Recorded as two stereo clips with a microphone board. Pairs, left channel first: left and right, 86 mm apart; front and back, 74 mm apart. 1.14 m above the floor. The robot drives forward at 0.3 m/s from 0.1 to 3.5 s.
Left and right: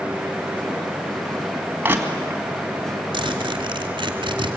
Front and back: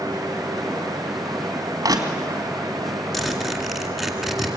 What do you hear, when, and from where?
1.8 s crushing: 155° right, 2.5 m
3.1 s a zipper: 90° right, 2.5 m